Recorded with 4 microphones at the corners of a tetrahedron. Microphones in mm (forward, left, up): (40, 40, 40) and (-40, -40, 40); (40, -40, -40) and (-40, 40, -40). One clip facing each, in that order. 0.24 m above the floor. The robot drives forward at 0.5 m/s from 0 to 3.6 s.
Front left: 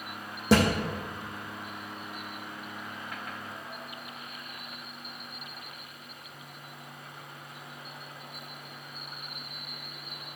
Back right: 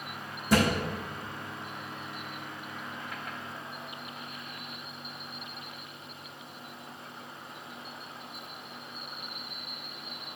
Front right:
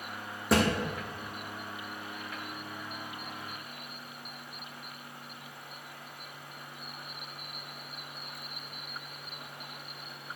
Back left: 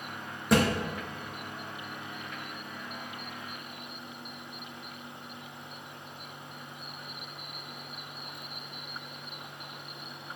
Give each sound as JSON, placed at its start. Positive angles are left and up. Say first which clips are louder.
{"t": 0.5, "sound": "a thud", "louder": "front left 2 dB, back left 2 dB", "azimuth_deg": 45, "distance_m": 2.5}